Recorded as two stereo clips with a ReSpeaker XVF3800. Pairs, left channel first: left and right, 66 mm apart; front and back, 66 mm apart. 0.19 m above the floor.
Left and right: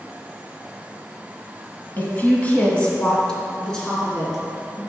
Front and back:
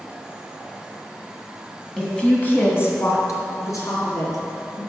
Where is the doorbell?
No doorbell in this recording.